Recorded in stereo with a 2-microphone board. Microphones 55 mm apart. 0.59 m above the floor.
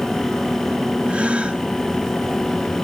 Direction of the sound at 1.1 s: 20° right (ahead or behind).